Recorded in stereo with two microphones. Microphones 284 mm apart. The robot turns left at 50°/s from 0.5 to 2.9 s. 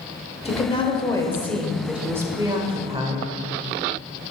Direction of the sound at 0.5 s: 20° left (ahead or behind).